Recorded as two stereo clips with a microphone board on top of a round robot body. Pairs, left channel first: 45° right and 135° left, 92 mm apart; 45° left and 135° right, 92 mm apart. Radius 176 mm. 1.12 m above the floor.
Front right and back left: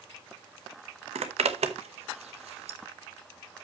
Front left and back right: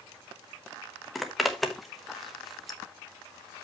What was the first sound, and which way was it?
A zipper, 135° left.